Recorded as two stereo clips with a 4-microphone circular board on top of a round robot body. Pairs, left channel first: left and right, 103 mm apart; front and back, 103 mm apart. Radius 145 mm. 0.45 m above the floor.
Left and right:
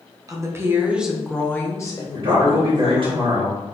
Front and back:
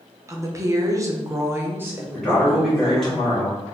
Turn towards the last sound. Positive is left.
turn(degrees=-85)